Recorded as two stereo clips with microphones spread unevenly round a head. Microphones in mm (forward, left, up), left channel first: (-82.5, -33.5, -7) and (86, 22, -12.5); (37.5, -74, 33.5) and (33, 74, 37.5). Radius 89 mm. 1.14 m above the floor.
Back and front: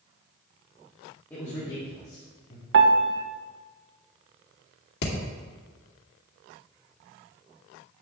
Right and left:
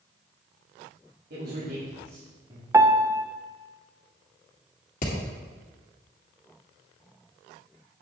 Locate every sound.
1.3 s a man speaking: 120° left, 2.5 m; by 2.6 s 160° left, 3 m
2.7 s a piano: 20° left, 0.8 m
5.0 s hammering: 135° right, 2 m